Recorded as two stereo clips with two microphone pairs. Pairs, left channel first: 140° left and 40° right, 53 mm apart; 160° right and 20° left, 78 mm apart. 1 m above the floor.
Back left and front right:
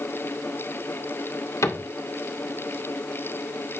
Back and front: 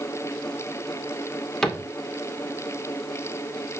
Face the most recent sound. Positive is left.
turn(degrees=115)